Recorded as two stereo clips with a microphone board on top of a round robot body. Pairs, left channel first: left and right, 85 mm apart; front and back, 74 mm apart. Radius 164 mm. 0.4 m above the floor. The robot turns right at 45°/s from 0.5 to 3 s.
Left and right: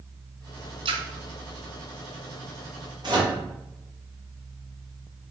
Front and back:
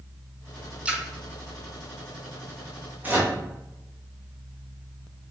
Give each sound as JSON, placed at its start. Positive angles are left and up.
{"t": 0.8, "sound": "a splash", "azimuth_deg": -105, "distance_m": 1.0}
{"t": 3.0, "sound": "a microwave", "azimuth_deg": -115, "distance_m": 1.8}